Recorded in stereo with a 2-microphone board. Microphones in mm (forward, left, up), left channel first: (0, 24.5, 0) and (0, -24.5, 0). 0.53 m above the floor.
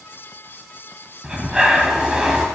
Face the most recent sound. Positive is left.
turn(degrees=-15)  # may be behind; listen again after turning